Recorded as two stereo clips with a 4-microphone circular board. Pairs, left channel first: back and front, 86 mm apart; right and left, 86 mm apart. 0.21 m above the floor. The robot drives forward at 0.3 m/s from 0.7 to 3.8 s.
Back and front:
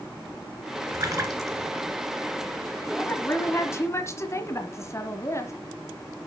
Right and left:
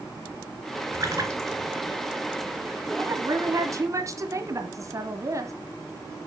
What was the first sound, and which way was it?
A splash, 40° left.